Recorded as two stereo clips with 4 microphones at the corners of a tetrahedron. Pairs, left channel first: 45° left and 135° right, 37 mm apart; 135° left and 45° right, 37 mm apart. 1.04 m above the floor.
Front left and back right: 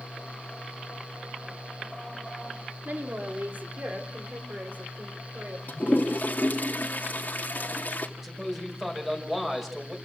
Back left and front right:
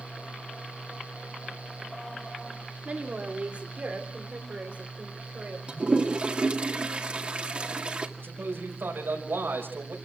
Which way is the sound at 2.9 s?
100° right.